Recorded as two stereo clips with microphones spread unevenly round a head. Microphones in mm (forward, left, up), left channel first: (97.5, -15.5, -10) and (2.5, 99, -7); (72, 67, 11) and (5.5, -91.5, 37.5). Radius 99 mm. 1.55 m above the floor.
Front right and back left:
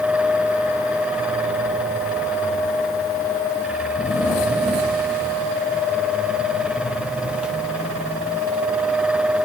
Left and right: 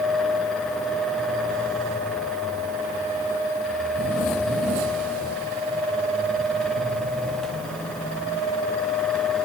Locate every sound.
Only background noise.